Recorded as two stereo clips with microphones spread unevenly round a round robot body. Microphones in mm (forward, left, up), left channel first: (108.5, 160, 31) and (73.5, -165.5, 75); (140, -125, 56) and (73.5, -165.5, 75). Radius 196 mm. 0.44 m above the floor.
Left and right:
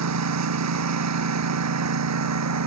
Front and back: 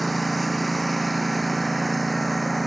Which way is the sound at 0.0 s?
60° right.